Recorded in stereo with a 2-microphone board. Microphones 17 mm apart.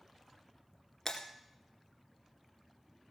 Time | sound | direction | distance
1.1 | breaking glass | 30° left (ahead or behind) | 1.8 m